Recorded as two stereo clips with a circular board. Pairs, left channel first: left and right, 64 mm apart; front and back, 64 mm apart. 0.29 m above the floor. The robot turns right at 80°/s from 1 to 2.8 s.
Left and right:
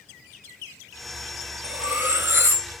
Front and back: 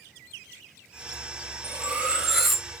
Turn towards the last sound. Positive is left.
turn(degrees=-65)